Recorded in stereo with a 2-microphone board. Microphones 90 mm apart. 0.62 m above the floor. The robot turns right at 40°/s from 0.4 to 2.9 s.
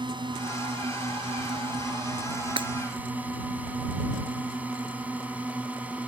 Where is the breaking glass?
70° right (ahead or behind); by 2.7 s 65° right (ahead or behind).